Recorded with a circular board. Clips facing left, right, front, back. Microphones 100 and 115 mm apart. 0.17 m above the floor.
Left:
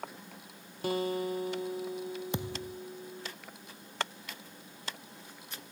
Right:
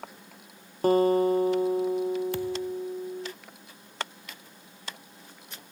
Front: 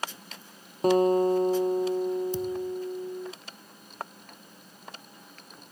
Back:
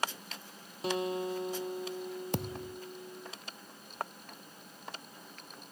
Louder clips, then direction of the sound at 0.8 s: Right 11 dB, front 12 dB; 45° right.